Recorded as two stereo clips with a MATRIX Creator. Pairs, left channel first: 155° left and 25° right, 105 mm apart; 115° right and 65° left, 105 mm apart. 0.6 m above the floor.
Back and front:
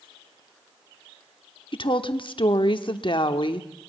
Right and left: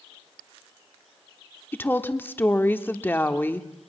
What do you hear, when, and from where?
1.7 s a woman speaking: straight behind, 1.1 m